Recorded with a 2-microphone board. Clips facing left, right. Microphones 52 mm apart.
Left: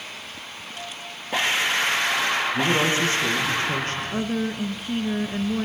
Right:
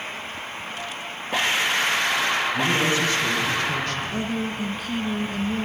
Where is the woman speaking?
25° left (ahead or behind), 1.7 m.